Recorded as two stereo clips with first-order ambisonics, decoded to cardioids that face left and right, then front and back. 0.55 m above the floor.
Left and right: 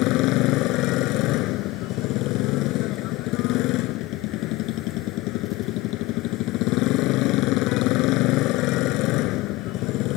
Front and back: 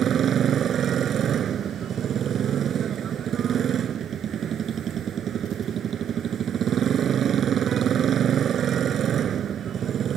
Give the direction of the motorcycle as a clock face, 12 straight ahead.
8 o'clock.